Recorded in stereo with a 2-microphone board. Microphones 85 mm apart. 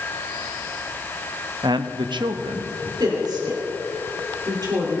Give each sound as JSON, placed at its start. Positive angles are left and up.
{"t": 1.6, "sound": "a man speaking", "side_deg": -60, "distance_m": 0.7}
{"t": 3.0, "sound": "a woman speaking", "side_deg": -55, "distance_m": 3.0}